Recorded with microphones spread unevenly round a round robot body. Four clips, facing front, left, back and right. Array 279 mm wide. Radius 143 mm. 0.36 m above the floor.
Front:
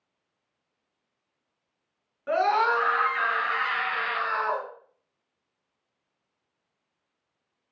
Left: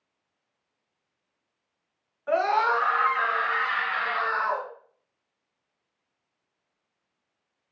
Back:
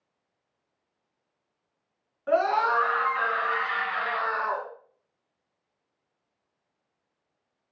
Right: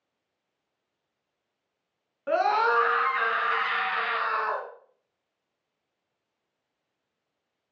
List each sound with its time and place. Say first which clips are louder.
2.3 s a scream: even, even; 85° right, 4 m; by 4.7 s 45° right, 3.5 m